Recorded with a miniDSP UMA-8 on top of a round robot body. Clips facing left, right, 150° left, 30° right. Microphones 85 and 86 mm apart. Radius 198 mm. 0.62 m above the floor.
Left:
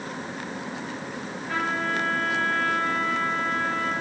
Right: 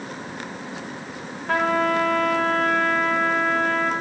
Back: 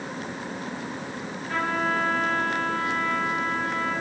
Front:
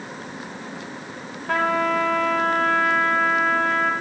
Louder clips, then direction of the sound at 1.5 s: Right 7 dB, front 5 dB; 55° right.